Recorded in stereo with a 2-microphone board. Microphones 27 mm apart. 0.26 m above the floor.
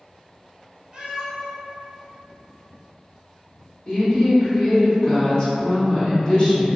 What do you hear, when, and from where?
0.9 s a cat meowing: 35° right (ahead or behind), 1.4 m
3.9 s a woman speaking: 30° left (ahead or behind), 1.5 m